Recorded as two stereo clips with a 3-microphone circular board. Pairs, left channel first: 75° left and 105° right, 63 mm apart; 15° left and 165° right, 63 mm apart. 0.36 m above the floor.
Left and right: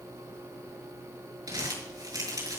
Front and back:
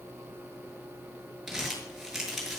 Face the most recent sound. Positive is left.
turn(degrees=-80)